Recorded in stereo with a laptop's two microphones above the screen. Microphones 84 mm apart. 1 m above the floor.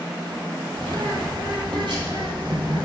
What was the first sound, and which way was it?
A bird, 65° right (ahead or behind).